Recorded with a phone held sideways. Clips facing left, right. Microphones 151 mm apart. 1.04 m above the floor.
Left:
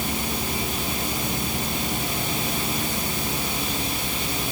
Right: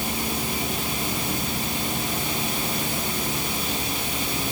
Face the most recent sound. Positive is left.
No sound to turn to.